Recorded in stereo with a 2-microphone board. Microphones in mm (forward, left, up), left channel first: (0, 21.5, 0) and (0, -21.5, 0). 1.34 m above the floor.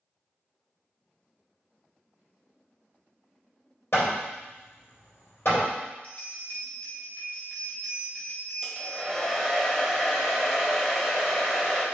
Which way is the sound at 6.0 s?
30° left (ahead or behind).